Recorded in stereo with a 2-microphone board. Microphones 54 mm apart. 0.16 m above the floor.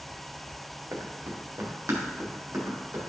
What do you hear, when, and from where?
0.9 s running footsteps: 60° right (ahead or behind), 2.5 m